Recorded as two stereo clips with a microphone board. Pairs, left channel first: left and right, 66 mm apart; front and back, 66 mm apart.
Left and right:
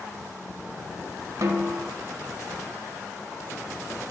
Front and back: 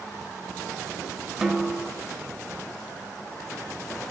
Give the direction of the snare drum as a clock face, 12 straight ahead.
3 o'clock.